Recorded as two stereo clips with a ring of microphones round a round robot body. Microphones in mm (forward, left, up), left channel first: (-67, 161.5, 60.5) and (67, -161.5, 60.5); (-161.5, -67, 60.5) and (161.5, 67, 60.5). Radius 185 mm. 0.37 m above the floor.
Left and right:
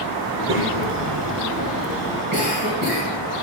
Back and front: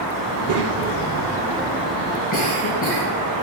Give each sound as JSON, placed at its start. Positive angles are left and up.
{"t": 0.3, "sound": "a child speaking", "azimuth_deg": -15, "distance_m": 1.4}
{"t": 2.3, "sound": "a cough", "azimuth_deg": -90, "distance_m": 2.0}